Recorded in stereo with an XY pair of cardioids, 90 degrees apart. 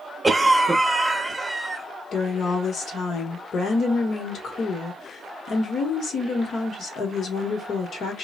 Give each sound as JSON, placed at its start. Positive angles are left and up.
{"t": 0.2, "sound": "a cough", "azimuth_deg": -5, "distance_m": 1.0}
{"t": 2.1, "sound": "a woman speaking", "azimuth_deg": 65, "distance_m": 1.1}